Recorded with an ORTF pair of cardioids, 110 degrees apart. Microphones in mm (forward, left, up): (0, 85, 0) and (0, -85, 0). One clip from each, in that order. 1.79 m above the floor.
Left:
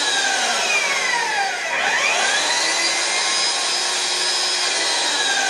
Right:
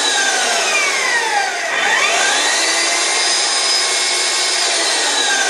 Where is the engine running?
70° right, 4.5 m.